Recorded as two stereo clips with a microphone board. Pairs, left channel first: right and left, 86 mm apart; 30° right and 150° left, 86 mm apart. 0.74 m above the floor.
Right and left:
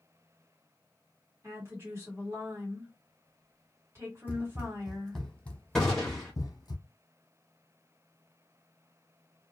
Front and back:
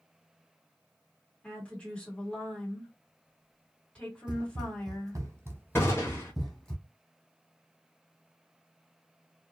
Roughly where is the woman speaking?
Ahead left.